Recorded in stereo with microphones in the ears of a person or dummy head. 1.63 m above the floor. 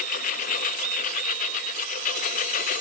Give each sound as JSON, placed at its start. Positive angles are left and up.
{"t": 0.0, "sound": "a lawn mower", "side_deg": 50}